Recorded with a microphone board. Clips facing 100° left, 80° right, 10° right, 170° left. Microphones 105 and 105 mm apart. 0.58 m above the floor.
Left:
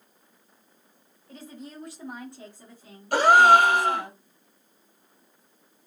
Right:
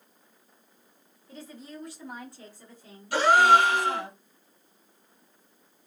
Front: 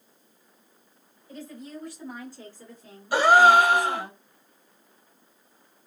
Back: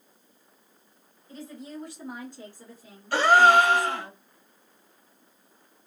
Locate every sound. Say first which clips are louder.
1.3 s a woman speaking: left 1 dB, even; 130° left, 1.7 m; by 4.1 s 45° right, 1.3 m
3.1 s a gasp: left 3 dB, front 1 dB; 65° left, 0.9 m